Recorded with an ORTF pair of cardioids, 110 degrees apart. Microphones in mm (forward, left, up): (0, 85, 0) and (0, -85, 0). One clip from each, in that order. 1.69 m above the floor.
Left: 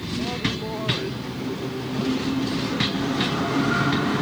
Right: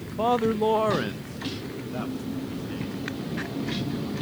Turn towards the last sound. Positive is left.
turn(degrees=-35)